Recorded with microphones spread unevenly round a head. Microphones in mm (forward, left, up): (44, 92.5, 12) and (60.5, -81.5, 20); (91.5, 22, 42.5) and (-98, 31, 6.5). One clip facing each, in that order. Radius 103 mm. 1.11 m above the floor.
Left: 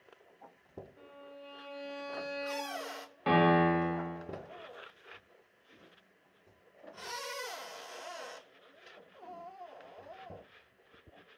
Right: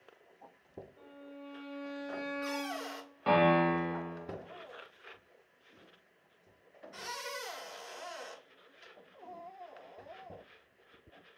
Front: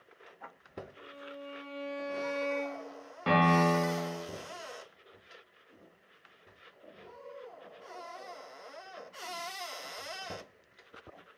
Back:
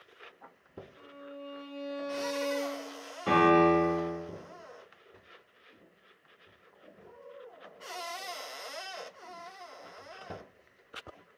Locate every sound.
1.0 s a violin: 80° left, 0.7 m
3.3 s a piano: 15° left, 1.0 m